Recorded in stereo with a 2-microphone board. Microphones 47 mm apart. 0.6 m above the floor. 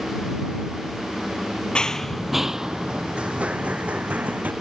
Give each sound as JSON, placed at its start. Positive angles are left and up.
{"t": 1.8, "sound": "running footsteps", "side_deg": 20}